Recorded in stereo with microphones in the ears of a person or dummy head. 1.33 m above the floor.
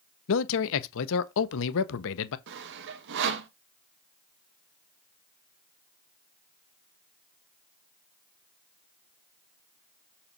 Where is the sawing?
60° right (ahead or behind), 1.1 m.